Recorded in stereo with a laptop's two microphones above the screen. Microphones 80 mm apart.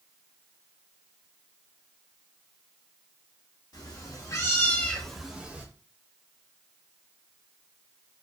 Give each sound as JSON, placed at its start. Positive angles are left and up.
{"t": 3.7, "sound": "a cat meowing", "side_deg": 50, "distance_m": 0.8}